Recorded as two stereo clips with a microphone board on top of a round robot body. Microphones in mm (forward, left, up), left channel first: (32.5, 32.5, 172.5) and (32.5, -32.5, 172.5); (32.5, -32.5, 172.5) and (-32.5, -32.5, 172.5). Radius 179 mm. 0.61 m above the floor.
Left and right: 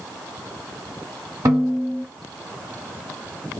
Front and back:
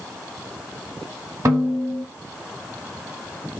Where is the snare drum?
135° right, 0.7 m.